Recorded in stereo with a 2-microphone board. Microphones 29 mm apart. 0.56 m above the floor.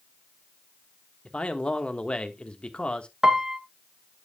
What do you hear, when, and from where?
1.2 s a man speaking: 40° left (ahead or behind), 1.2 m
3.2 s a piano: 20° right (ahead or behind), 0.9 m